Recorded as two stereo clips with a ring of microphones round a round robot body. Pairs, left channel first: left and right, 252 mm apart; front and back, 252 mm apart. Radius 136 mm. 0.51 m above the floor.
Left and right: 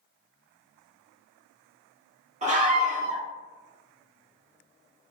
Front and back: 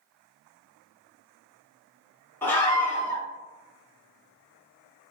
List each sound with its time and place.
2.4 s a scream: 75° right, 1.4 m